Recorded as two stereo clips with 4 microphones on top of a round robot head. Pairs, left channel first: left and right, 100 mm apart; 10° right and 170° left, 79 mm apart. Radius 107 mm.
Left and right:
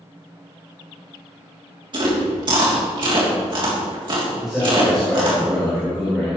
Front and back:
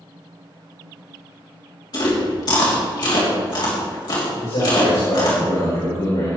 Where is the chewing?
45° right, 3 m.